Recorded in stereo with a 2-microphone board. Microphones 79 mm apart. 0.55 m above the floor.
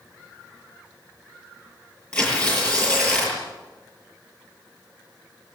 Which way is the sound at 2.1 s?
10° left (ahead or behind).